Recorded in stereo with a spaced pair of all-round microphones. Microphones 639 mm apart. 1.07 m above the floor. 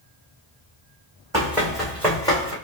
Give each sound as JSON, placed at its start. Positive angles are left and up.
{"t": 1.3, "sound": "running footsteps", "side_deg": -5, "distance_m": 2.5}